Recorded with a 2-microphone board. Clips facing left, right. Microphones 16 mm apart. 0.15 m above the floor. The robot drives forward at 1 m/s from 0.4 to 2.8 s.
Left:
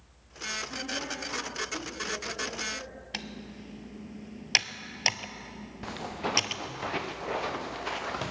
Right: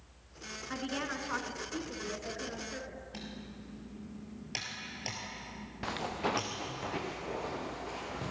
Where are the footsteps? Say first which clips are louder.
Even; 15° right (ahead or behind), 1.0 m; by 8.3 s 60° left (ahead or behind), 1.5 m.